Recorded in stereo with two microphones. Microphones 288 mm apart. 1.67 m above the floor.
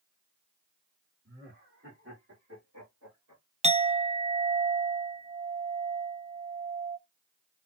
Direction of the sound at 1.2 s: 40° right (ahead or behind).